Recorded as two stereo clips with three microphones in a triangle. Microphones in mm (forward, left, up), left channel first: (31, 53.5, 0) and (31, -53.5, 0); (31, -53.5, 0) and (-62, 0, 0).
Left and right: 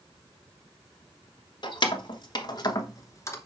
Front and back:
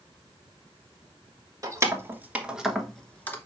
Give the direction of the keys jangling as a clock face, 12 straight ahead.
9 o'clock.